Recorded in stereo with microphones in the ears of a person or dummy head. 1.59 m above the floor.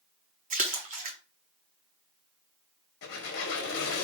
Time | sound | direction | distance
0.5 | a splash | 45° right (ahead or behind) | 0.7 m
3.0 | a squeak | 55° left (ahead or behind) | 0.9 m